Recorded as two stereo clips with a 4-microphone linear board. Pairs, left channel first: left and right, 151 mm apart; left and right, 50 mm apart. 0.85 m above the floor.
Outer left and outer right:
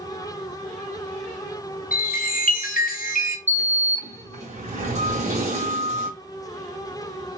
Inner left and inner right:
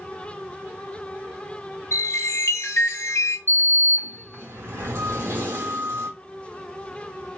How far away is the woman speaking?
No woman speaking in this recording.